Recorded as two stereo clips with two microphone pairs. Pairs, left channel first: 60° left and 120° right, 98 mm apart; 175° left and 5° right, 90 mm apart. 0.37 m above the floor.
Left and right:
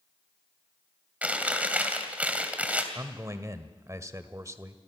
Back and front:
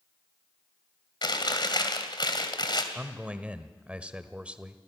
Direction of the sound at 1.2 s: 165° left.